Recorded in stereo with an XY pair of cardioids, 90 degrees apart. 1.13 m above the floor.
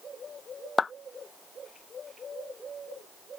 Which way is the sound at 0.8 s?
30° left.